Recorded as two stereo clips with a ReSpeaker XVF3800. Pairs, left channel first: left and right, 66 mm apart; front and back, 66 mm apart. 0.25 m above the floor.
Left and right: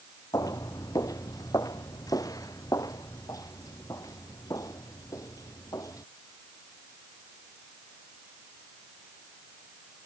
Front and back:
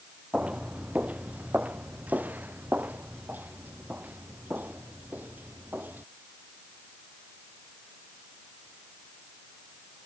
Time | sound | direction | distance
0.3 | footsteps | 110° left | ?